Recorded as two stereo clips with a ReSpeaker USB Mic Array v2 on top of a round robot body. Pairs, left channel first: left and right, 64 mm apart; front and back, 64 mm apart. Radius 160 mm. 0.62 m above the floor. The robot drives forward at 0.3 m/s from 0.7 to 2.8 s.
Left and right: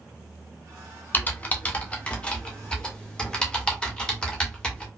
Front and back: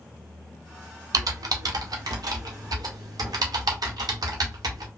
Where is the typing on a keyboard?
155° left, 0.5 m; by 4.9 s 165° left, 1.0 m.